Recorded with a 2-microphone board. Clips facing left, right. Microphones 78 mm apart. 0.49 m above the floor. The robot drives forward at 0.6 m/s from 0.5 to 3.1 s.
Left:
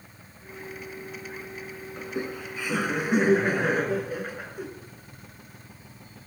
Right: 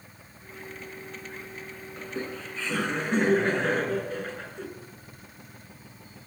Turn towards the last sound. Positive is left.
turn(degrees=10)  # may be behind; listen again after turning